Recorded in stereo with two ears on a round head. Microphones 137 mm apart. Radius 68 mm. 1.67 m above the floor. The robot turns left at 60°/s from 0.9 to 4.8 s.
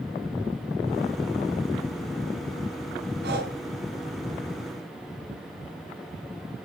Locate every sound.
3.2 s breathing: 70° right (ahead or behind), 4.5 m; by 3.5 s 65° right (ahead or behind), 4.5 m